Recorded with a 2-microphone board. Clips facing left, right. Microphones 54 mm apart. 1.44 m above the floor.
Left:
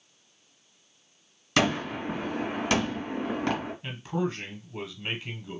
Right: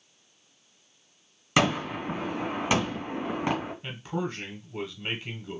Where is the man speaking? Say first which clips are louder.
Left 2 dB; 5° right (ahead or behind), 1.1 m.